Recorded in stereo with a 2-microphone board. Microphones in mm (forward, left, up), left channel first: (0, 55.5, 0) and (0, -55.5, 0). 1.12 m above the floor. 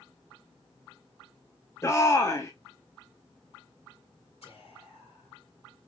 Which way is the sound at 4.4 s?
75° left (ahead or behind).